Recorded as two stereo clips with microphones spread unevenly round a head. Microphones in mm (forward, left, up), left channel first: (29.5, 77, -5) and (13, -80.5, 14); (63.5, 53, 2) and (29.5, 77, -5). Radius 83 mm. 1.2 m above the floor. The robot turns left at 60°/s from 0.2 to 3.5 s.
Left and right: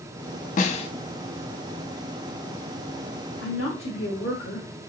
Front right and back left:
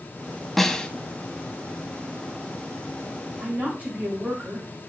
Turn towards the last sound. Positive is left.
turn(degrees=100)